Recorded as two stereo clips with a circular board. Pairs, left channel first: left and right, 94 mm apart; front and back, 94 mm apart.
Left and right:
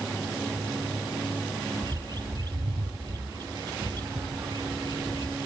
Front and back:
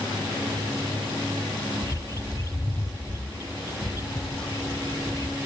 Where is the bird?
50° right.